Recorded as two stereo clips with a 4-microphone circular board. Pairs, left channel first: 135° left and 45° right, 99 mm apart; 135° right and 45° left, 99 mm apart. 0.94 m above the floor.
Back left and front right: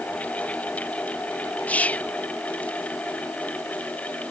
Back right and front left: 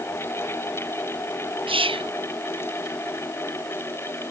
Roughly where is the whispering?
Ahead left.